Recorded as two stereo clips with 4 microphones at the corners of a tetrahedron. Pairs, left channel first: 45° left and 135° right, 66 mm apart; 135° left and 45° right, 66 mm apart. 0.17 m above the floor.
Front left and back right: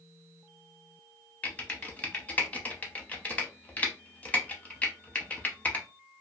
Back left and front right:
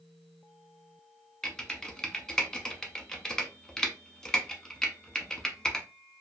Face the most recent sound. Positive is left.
turn(degrees=70)